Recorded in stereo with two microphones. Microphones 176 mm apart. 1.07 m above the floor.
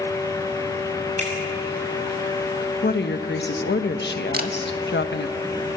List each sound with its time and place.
1.2 s a finger snap: 40° right (ahead or behind), 6.5 m
2.8 s a woman speaking: 70° left (ahead or behind), 1.2 m
4.3 s a camera shutter: 55° right (ahead or behind), 1.6 m